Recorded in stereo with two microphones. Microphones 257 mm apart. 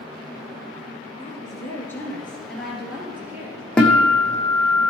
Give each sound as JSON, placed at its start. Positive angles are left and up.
{"t": 1.2, "sound": "a woman speaking", "side_deg": 20, "distance_m": 2.5}
{"t": 3.8, "sound": "a guitar", "side_deg": 5, "distance_m": 2.0}